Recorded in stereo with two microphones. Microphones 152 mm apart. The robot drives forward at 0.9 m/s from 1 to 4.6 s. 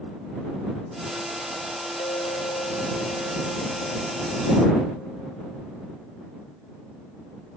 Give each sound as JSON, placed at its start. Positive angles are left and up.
{"t": 2.0, "sound": "a clink", "side_deg": 35}